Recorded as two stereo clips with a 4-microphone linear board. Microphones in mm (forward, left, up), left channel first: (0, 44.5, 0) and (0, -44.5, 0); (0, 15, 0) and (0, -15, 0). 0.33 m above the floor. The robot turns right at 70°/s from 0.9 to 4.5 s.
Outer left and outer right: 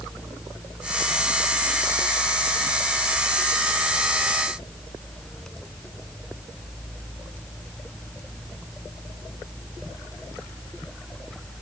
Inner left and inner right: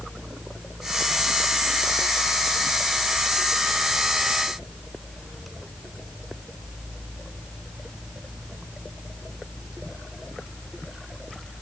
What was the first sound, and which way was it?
Only background noise.